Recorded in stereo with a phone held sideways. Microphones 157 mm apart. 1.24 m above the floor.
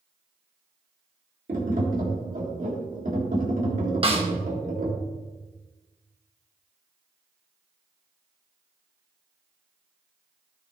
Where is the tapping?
60° right (ahead or behind), 2 m.